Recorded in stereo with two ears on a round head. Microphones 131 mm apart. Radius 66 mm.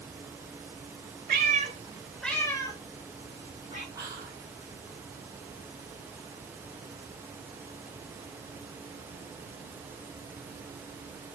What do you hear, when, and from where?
1.3 s a cat meowing: 65° right (ahead or behind), 1.0 m; by 3.9 s 50° left (ahead or behind), 2 m
4.0 s whispering: 25° right (ahead or behind), 1.8 m